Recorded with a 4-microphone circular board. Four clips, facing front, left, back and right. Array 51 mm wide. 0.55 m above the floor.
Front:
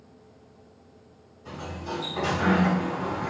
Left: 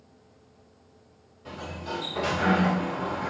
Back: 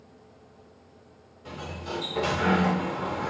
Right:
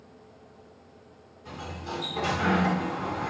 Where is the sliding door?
145° left, 1.9 m.